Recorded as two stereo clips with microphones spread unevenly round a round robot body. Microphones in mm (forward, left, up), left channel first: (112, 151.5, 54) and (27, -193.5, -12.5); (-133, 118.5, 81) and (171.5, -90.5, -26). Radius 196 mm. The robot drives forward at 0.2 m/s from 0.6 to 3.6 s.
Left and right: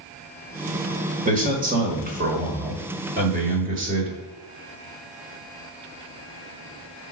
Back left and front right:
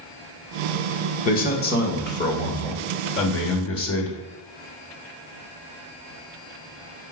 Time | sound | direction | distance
1.2 | a man speaking | 135° right | 1.3 m